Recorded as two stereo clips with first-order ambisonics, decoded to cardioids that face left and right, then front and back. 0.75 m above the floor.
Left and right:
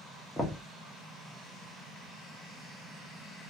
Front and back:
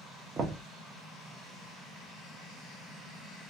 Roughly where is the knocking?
Behind left.